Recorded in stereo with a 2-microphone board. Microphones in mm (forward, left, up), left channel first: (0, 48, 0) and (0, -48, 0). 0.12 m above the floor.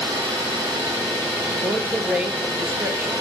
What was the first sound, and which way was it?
An engine running, 35° right (ahead or behind).